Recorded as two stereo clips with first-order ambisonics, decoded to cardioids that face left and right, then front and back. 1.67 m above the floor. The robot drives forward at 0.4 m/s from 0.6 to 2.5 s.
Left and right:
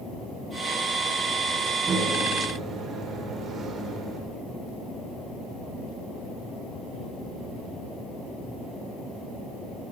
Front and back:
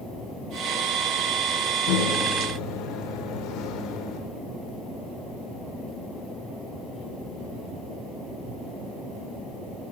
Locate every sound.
1.9 s a microwave: 25° right, 4.5 m; by 4.2 s 30° right, 4.5 m